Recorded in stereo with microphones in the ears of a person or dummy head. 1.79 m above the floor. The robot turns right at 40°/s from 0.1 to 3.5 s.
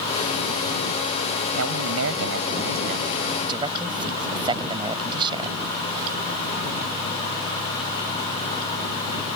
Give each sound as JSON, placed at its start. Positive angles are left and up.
{"t": 1.5, "sound": "a man speaking", "azimuth_deg": -95}